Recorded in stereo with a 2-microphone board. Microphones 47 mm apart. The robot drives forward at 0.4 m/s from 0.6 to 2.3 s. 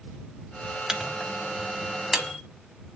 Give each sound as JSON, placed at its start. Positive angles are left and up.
{"t": 0.9, "sound": "a microwave", "side_deg": -10, "distance_m": 0.8}